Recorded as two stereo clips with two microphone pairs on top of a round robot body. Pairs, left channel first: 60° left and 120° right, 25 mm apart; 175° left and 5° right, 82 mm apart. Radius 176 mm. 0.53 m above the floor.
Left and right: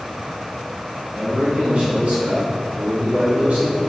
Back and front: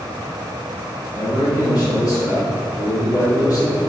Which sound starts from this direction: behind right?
A man speaking, at 1.1 s.